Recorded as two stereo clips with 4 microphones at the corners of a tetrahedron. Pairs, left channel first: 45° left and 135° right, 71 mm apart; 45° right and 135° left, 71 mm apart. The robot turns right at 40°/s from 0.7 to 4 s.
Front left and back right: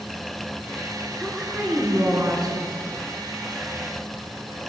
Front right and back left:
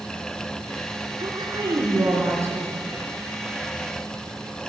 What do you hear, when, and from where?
1.2 s a woman speaking: 140° left, 6.5 m; by 2.9 s 155° right, 6.5 m